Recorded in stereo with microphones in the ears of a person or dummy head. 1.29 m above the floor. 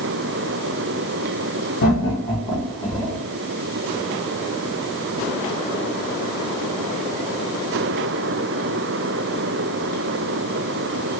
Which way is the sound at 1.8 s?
50° left (ahead or behind).